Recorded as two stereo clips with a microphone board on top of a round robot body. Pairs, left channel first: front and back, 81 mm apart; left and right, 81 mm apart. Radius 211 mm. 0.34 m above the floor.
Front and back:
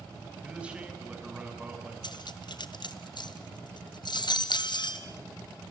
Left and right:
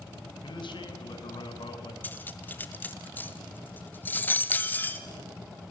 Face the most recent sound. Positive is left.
turn(degrees=25)